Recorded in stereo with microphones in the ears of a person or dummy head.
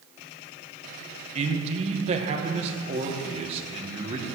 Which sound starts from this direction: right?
A man speaking, at 1.4 s.